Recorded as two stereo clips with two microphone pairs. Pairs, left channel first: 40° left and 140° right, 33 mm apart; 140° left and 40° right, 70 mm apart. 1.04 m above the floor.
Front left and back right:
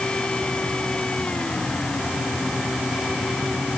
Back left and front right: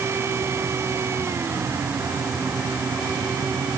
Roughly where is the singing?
I don't hear singing.